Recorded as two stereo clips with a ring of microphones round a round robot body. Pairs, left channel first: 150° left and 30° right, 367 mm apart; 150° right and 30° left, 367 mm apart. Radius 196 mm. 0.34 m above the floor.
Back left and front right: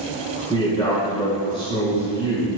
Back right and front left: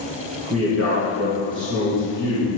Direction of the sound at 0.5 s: 75° left.